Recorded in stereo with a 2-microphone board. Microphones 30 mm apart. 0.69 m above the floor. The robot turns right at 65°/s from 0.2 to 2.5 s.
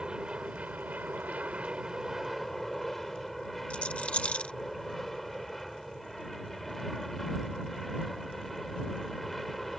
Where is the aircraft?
145° right; by 9.8 s 5° left.